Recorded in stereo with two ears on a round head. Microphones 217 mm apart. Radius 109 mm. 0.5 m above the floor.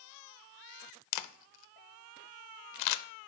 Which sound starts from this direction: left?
A camera shutter, at 1.1 s.